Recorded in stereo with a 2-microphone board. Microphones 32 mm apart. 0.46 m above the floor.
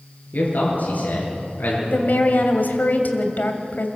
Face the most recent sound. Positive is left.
turn(degrees=65)  # may be behind; listen again after turning